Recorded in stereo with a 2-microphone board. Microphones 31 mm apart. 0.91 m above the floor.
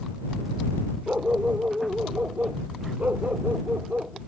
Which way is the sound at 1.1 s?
60° right (ahead or behind).